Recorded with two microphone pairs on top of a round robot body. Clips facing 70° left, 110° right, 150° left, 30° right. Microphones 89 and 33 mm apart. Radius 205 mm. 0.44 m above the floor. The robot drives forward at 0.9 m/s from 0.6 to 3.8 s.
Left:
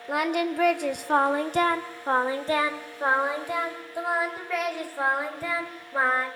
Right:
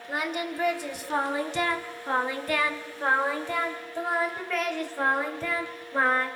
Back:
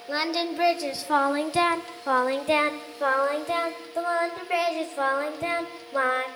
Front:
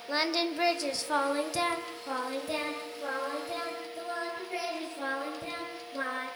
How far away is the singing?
About 1.7 m.